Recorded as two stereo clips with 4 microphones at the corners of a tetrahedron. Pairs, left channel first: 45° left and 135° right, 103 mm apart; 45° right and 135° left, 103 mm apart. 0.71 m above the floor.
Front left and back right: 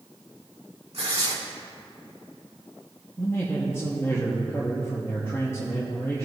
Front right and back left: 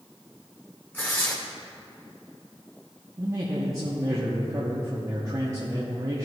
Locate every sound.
0.9 s tearing paper: 120° right, 1.8 m
3.2 s a man speaking: 100° left, 1.1 m